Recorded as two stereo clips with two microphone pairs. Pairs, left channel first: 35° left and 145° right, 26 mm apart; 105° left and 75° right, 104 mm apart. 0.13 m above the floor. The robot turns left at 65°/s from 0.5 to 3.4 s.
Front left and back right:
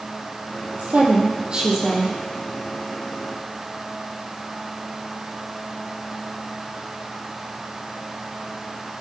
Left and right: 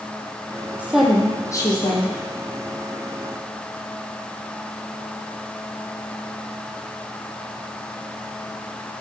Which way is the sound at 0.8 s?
145° right.